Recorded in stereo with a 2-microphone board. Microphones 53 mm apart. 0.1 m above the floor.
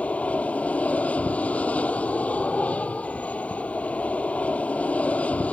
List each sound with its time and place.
0.0 s an aircraft: 25° left (ahead or behind)